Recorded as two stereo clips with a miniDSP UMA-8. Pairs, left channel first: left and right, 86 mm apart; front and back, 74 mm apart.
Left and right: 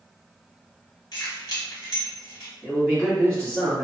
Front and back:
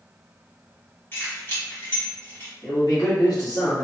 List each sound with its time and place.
1.1 s keys jangling: 55° left, 1.5 m
2.6 s a man speaking: 10° left, 1.4 m